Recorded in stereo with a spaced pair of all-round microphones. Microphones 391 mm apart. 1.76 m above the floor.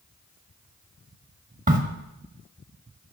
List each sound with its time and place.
1.7 s a crack: 20° right (ahead or behind), 1.2 m